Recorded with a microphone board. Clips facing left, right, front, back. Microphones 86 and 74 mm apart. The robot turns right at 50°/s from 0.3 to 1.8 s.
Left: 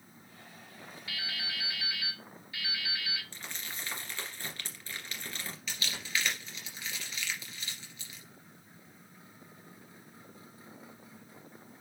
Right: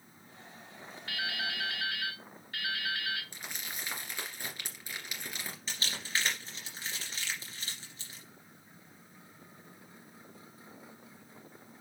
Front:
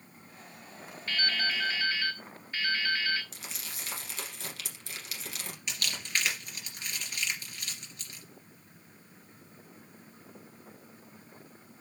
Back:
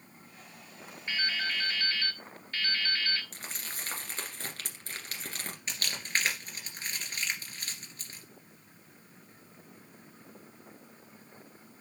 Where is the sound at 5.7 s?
135° right, 2.5 m.